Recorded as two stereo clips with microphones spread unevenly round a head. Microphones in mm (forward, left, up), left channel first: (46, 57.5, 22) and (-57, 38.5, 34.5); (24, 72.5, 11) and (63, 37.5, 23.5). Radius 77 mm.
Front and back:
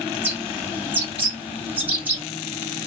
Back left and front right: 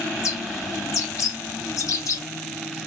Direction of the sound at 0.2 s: 120° left.